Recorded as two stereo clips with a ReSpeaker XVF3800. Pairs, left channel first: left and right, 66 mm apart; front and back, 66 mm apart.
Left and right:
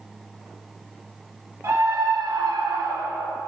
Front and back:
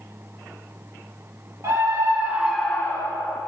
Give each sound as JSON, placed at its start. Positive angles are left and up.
{"t": 1.6, "sound": "a scream", "azimuth_deg": -140, "distance_m": 1.7}